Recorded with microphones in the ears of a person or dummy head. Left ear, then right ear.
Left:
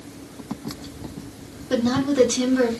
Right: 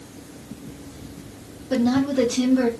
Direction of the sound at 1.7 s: 25° left (ahead or behind).